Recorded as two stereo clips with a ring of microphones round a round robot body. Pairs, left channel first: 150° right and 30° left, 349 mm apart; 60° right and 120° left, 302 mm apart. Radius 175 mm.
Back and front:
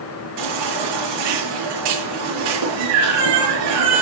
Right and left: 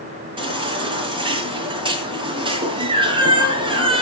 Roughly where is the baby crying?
Ahead left.